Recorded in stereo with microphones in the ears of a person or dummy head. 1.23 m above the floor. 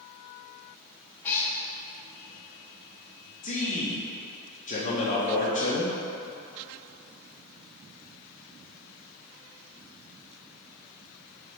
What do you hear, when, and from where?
1.2 s a cat meowing: 10° left (ahead or behind), 0.7 m
3.4 s a man speaking: 40° left (ahead or behind), 0.9 m